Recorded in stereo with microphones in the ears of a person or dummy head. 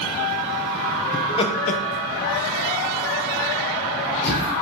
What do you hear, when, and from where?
1.1 s laughter: 20° left (ahead or behind), 0.8 m; by 4.5 s 55° left (ahead or behind), 1.4 m